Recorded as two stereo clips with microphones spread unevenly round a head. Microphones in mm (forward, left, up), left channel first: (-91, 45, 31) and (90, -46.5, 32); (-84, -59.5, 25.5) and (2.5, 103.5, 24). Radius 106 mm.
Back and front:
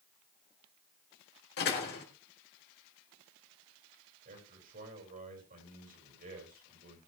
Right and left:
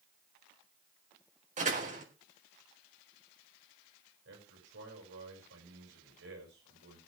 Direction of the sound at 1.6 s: 110° left.